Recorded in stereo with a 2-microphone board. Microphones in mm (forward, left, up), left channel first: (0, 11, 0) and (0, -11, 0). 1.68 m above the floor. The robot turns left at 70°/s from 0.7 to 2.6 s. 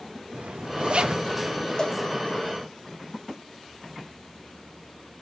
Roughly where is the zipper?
Right.